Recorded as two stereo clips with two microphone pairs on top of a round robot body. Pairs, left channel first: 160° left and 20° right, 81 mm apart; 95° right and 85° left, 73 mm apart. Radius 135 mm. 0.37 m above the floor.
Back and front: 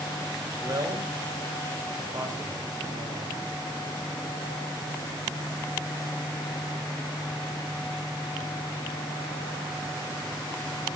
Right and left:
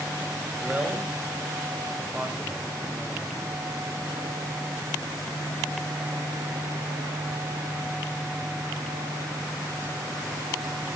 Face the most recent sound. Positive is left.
turn(degrees=15)